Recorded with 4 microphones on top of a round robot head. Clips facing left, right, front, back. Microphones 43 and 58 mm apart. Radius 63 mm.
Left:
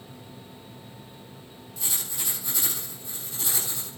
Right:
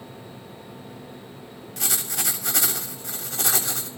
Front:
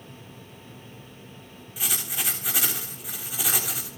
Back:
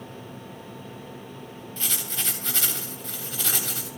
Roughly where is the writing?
Right.